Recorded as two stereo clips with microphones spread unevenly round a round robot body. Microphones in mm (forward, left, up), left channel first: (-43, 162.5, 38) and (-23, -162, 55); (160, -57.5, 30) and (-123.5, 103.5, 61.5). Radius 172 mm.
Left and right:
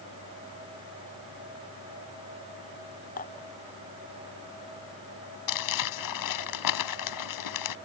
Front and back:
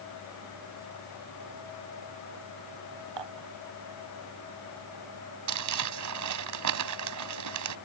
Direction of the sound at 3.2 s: 160° left.